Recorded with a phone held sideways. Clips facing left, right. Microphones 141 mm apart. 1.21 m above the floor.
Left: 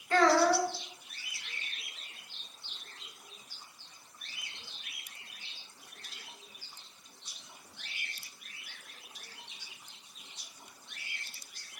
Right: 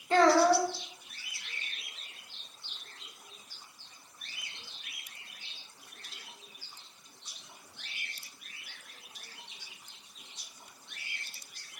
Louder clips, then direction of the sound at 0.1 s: Right 2 dB; 25° right (ahead or behind).